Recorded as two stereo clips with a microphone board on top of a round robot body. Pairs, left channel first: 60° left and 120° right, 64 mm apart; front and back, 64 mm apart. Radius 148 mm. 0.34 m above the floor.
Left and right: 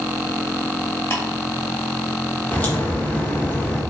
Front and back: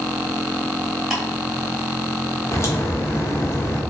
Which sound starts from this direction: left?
Ticking, at 1.1 s.